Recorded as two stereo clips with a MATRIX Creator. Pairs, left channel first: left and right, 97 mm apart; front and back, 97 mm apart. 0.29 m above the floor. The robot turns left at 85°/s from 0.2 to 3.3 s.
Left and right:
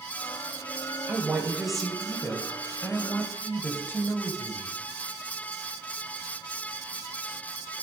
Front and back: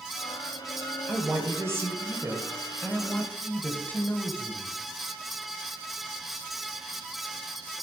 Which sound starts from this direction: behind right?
A woman speaking, at 1.1 s.